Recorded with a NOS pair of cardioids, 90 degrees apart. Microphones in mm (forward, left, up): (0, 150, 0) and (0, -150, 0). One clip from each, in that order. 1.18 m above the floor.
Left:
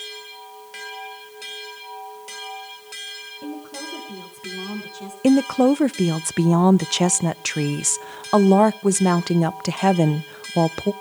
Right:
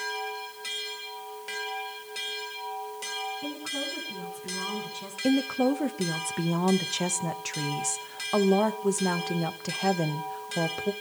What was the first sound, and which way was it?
A woman speaking, 65° left.